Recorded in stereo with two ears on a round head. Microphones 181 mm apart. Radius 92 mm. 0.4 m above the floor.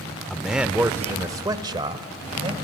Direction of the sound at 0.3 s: Centre (ahead or behind).